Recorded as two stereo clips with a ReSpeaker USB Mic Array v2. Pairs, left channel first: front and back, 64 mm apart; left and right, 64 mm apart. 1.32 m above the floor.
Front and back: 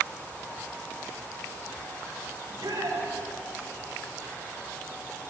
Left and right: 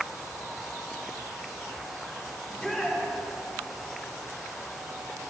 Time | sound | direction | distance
2.4 | a shout | straight behind | 5 m